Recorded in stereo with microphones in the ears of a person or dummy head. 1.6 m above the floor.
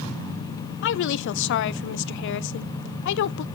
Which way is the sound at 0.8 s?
55° left (ahead or behind).